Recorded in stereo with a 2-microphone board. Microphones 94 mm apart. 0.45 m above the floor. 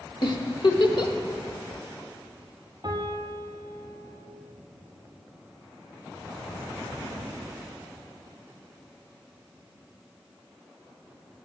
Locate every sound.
0.2 s a giggle: 55° left (ahead or behind), 1.1 m
2.8 s a piano: 45° right (ahead or behind), 2 m